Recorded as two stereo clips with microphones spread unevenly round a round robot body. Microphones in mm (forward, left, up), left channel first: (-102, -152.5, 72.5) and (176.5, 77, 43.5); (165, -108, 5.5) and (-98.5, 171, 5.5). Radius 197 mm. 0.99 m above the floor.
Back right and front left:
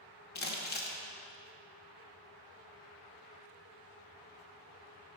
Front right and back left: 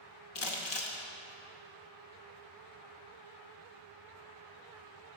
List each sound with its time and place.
0.3 s crumpling: 90° right, 0.8 m